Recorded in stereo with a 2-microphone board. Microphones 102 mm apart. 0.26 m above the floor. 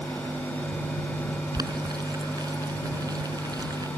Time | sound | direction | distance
1.5 | boiling | 40° right (ahead or behind) | ?